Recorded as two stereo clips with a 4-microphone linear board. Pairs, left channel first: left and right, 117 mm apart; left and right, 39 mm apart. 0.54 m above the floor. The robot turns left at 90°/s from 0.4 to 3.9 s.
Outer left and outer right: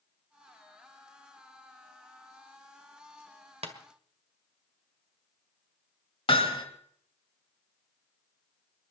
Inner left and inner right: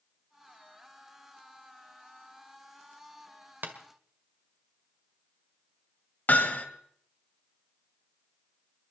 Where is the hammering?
55° left (ahead or behind), 1.7 m.